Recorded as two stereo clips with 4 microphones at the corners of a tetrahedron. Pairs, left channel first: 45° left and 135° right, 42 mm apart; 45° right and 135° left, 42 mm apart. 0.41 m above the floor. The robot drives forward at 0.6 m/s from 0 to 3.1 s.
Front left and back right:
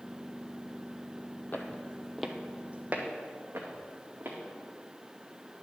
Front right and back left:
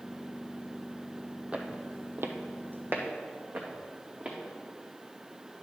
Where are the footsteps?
75° left, 0.9 m; by 4.4 s 165° right, 2 m.